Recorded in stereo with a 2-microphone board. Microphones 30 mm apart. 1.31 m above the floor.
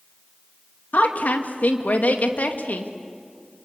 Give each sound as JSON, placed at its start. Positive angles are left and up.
{"t": 0.9, "sound": "a woman speaking", "side_deg": 75, "distance_m": 2.0}